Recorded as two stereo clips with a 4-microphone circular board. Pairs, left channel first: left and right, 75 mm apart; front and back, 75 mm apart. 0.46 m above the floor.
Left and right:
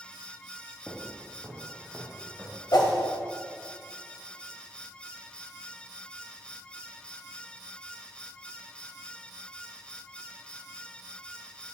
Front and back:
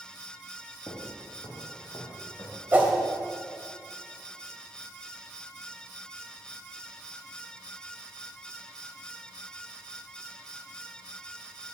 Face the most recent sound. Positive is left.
turn(degrees=115)